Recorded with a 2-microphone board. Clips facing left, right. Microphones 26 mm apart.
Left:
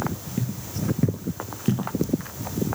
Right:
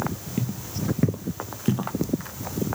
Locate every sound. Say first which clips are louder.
0.4 s footsteps: even; 15° right (ahead or behind), 1.0 m; by 1.9 s 5° right (ahead or behind), 1.3 m